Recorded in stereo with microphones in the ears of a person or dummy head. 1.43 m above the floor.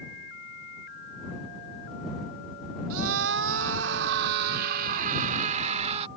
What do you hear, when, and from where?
2.9 s a scream: 85° right; by 6.1 s 40° right (ahead or behind)